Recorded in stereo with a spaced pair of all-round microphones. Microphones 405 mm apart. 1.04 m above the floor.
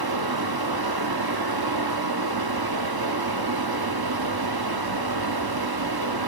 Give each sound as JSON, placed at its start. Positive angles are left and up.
{"t": 0.0, "sound": "a fan", "side_deg": -65, "distance_m": 0.9}